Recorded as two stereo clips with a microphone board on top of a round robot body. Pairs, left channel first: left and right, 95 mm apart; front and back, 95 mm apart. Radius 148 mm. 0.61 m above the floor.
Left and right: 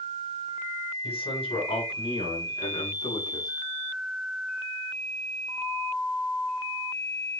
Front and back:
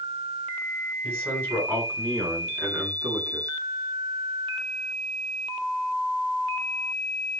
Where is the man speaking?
110° left, 7.5 m; by 3.5 s 130° left, 7.5 m.